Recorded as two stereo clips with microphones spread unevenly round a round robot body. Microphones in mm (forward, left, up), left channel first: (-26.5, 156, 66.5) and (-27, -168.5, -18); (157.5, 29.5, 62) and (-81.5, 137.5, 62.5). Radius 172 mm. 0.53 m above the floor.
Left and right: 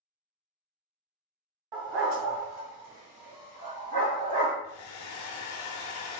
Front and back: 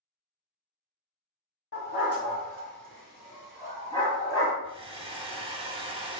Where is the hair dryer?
90° left, 0.6 m.